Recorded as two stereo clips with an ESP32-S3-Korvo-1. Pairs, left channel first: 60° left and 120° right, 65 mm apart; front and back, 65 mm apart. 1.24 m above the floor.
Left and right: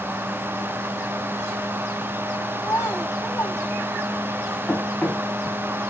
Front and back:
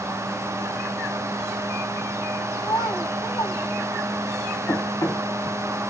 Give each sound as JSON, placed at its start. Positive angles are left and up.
{"t": 2.6, "sound": "a child speaking", "azimuth_deg": 15, "distance_m": 7.0}
{"t": 4.7, "sound": "running footsteps", "azimuth_deg": -5, "distance_m": 4.0}